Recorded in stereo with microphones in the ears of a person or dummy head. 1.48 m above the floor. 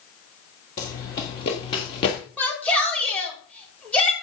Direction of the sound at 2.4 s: 10° left (ahead or behind).